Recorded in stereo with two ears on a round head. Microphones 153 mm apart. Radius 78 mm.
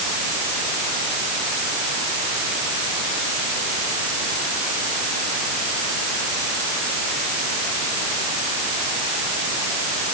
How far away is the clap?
No clap in this recording.